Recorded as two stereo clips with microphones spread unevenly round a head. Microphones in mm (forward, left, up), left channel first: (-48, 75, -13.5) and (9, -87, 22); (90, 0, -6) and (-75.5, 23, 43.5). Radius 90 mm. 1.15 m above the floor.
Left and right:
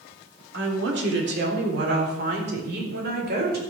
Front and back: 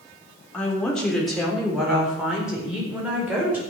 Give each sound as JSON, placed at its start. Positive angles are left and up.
{"t": 0.5, "sound": "a woman speaking", "azimuth_deg": -90, "distance_m": 3.5}